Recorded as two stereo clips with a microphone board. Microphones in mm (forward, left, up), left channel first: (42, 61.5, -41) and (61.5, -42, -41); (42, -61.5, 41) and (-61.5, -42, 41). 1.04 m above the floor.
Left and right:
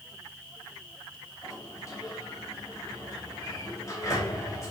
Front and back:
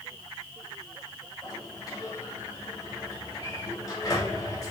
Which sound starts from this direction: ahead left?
A sliding door, at 1.4 s.